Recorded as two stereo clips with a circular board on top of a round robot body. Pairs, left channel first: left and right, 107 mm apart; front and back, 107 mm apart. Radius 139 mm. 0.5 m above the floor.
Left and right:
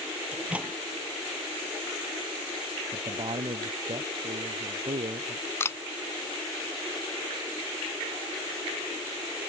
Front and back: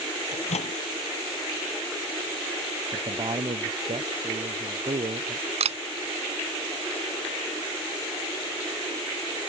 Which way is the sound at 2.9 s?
135° right.